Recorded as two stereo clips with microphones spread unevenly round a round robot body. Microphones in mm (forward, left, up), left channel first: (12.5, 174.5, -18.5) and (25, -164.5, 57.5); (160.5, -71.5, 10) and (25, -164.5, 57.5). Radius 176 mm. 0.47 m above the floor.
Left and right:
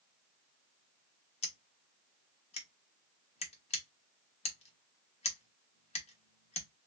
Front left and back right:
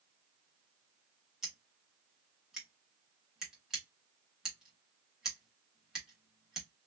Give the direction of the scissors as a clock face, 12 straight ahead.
9 o'clock.